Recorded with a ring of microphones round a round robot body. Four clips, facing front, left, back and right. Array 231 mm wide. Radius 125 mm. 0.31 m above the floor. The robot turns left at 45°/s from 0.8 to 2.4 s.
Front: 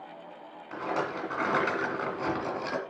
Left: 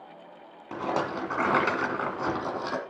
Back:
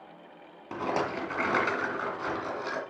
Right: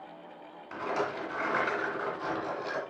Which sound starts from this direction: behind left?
A rattle, at 0.7 s.